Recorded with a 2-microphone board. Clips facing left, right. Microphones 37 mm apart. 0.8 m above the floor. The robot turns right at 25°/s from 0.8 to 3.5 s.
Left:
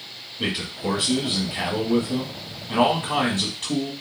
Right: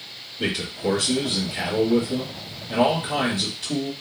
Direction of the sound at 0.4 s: 30° left.